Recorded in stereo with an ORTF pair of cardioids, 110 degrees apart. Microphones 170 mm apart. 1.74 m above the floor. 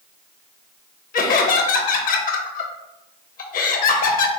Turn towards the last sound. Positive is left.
turn(degrees=55)